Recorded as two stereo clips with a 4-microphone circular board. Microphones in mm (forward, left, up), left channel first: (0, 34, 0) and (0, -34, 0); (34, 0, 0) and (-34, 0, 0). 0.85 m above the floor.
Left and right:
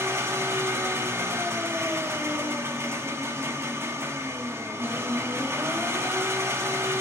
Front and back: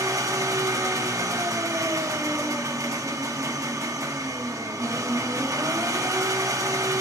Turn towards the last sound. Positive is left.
turn(degrees=-140)